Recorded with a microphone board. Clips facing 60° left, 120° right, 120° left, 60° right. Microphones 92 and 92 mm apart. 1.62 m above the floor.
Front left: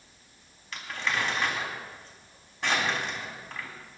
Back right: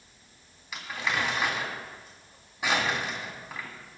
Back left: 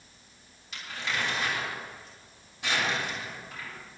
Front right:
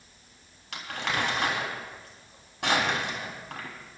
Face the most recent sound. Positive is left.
turn(degrees=-40)